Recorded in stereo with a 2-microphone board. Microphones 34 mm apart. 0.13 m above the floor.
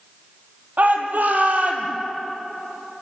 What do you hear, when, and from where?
0.8 s a shout: 60° right (ahead or behind), 5 m; by 1.9 s 50° right (ahead or behind), 4.5 m